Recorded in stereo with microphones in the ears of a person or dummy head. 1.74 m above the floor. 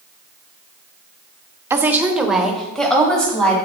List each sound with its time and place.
1.7 s a woman speaking: 10° right (ahead or behind), 0.8 m; by 3.5 s 5° left (ahead or behind), 2.5 m